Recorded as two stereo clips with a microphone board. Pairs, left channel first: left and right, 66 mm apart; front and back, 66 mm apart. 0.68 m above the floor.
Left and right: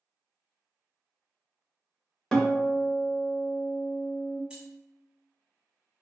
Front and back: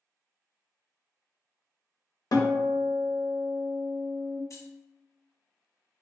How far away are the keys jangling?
About 0.7 m.